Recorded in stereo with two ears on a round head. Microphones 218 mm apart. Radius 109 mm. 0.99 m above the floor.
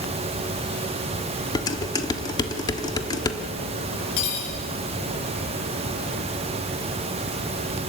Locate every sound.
1.6 s dishes clattering: 15° left (ahead or behind), 1.4 m
4.2 s cutlery clinking: 85° left, 7.5 m